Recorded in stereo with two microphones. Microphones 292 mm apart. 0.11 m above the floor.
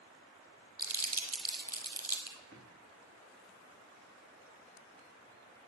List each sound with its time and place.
0.8 s crumpling: 60° right (ahead or behind), 1.7 m
2.5 s a drawer: 50° right (ahead or behind), 4 m